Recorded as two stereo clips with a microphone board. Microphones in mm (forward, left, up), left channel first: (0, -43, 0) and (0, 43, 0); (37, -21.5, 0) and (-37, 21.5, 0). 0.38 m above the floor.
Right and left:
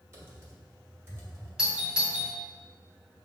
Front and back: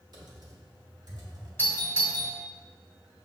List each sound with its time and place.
0.1 s typing on a keyboard: 140° left, 1.6 m
1.6 s a doorbell: 15° left, 1.8 m